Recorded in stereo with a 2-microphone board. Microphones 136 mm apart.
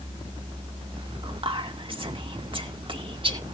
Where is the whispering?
40° right (ahead or behind), 2.5 m.